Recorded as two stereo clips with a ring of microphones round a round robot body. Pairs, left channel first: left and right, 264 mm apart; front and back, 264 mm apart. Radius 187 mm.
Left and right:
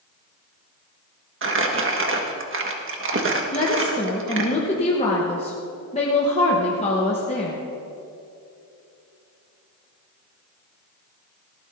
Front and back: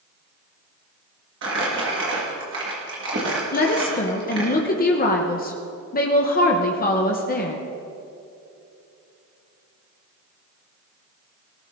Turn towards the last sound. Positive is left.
turn(degrees=35)